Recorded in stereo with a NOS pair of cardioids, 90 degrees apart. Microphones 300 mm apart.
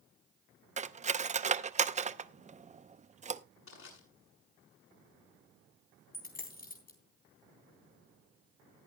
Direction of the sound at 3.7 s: 50° left.